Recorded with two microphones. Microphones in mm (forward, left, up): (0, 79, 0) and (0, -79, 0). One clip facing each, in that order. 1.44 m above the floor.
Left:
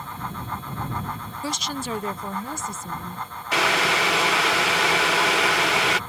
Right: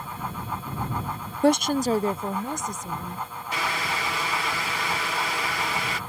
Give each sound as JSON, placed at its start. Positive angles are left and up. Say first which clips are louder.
{"t": 1.4, "sound": "a woman speaking", "louder": "right 10 dB", "side_deg": -60}
{"t": 3.5, "sound": "boiling", "louder": "left 7 dB", "side_deg": 80}